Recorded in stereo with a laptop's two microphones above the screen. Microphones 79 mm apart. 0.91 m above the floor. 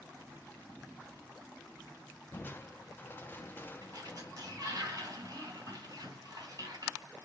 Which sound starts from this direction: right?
A sliding door, at 3.8 s.